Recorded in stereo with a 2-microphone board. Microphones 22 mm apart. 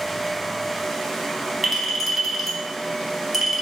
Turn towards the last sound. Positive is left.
turn(degrees=-5)  # may be behind; listen again after turning